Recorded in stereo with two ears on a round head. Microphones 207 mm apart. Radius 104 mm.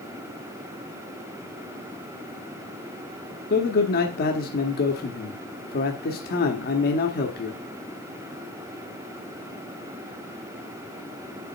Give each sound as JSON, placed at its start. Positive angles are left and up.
{"t": 3.5, "sound": "a man speaking", "side_deg": 45, "distance_m": 0.9}